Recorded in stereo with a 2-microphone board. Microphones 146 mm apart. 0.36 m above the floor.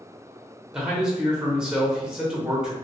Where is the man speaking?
5° right (ahead or behind), 0.8 m.